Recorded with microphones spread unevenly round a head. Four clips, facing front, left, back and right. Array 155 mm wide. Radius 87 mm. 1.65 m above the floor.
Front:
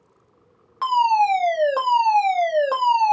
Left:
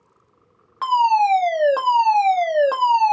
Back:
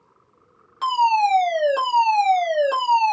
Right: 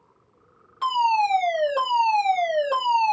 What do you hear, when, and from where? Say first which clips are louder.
0.8 s a fire alarm: left 5 dB, front 1 dB; 90° left, 2 m